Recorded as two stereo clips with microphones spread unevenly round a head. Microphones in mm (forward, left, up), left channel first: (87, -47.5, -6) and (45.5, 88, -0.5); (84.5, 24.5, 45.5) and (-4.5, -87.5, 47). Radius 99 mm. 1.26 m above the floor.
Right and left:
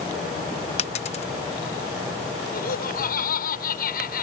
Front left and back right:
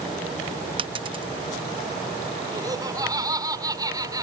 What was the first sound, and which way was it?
A dropped coin, 90° right.